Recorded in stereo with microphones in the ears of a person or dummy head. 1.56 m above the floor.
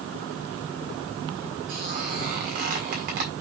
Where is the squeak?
45° right (ahead or behind), 1.6 m.